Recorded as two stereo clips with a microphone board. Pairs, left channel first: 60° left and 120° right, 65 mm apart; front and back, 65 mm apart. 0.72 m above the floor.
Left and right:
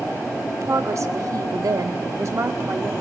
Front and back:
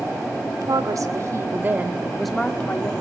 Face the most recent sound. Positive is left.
turn(degrees=-65)